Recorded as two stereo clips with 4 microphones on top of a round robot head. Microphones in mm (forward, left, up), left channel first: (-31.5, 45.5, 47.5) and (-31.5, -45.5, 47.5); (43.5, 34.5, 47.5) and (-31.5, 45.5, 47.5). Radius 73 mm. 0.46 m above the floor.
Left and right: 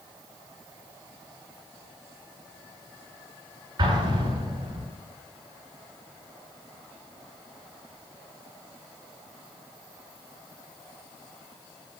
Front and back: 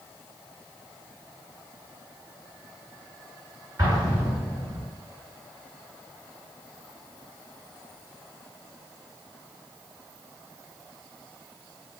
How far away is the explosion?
About 6.5 m.